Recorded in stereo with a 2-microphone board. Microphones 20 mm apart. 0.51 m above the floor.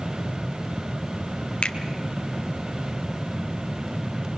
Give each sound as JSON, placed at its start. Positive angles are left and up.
{"t": 1.6, "sound": "a finger snap", "side_deg": 60, "distance_m": 1.5}